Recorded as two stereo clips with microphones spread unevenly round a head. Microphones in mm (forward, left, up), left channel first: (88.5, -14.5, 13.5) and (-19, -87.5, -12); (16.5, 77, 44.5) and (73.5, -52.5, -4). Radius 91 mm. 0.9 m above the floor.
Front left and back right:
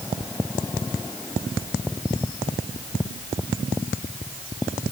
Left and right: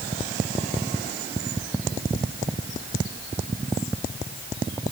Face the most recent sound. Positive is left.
No sound to turn to.